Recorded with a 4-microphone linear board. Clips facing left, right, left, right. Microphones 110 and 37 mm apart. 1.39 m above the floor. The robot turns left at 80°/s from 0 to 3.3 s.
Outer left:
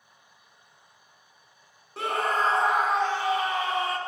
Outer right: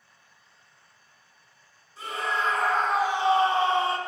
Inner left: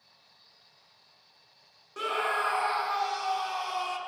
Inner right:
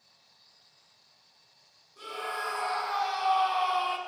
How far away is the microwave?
No microwave in this recording.